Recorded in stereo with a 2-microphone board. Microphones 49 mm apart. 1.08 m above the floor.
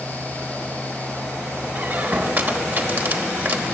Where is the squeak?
45° right (ahead or behind), 1.1 m.